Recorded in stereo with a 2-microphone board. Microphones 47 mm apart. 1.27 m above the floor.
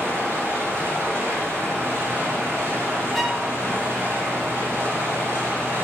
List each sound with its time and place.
0.0 s running water: 65° right (ahead or behind), 4 m
3.1 s a violin: 5° left (ahead or behind), 0.9 m